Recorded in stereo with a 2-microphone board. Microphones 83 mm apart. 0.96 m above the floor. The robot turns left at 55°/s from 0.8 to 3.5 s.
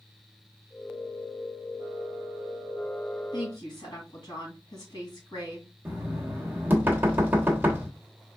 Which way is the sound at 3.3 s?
65° left (ahead or behind).